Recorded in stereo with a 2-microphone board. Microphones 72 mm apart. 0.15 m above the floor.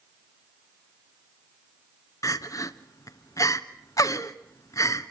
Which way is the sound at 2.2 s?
50° left (ahead or behind).